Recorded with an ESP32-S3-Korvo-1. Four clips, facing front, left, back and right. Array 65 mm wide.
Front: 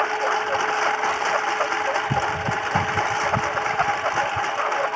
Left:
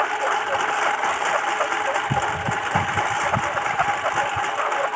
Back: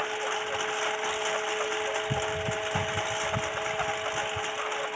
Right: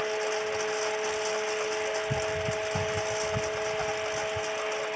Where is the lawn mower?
50° left.